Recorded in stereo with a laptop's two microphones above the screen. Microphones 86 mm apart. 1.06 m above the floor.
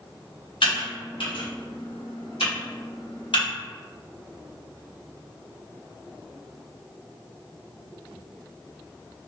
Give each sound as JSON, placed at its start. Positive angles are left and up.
{"t": 0.6, "sound": "typing on a keyboard", "side_deg": 70, "distance_m": 1.0}